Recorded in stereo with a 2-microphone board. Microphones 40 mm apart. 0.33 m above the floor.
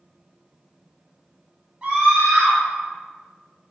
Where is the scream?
20° right (ahead or behind), 1.3 m.